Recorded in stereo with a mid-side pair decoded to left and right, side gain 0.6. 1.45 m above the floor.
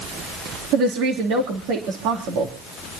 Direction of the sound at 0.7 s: 70° right.